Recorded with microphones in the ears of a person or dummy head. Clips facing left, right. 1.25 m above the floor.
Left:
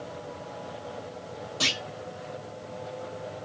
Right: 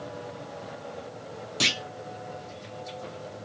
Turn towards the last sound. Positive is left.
turn(degrees=-30)  # may be behind; listen again after turning